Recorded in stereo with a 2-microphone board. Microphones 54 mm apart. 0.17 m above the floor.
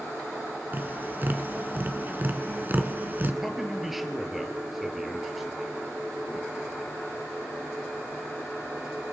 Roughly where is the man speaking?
Centre.